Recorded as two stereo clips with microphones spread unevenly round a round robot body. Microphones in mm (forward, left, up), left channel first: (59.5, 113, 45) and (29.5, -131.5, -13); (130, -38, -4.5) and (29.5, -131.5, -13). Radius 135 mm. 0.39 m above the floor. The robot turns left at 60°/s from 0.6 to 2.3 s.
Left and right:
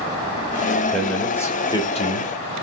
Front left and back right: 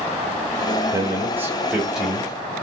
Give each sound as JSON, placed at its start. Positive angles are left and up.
{"t": 0.9, "sound": "a man speaking", "azimuth_deg": -150, "distance_m": 0.9}